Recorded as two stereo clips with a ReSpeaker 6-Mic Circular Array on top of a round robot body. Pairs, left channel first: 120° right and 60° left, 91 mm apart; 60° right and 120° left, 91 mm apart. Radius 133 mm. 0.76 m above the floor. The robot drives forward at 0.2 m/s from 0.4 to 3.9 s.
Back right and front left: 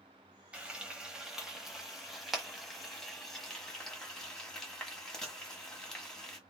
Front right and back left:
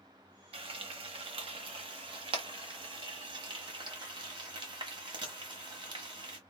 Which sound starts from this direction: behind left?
Frying, at 0.5 s.